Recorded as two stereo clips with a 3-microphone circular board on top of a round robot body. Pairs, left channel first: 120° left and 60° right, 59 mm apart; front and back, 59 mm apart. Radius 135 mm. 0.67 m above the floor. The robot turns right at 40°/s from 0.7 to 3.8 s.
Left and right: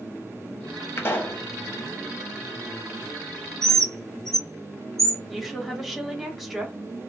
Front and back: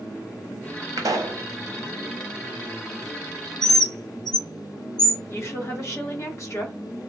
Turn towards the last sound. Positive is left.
turn(degrees=30)